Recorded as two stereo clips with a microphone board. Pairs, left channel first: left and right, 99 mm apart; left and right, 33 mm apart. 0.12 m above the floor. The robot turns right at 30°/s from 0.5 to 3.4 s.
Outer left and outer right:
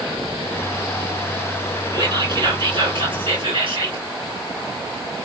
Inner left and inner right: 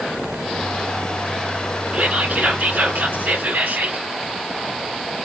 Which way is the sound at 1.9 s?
125° right.